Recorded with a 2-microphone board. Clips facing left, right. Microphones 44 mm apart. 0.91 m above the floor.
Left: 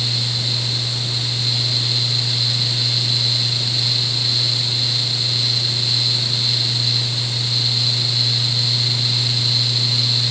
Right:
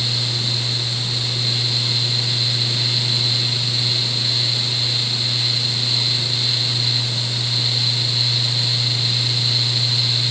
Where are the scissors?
I don't hear scissors.